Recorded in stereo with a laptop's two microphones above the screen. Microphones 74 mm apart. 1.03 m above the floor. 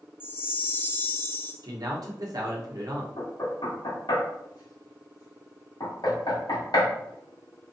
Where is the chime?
30° left (ahead or behind), 0.7 m.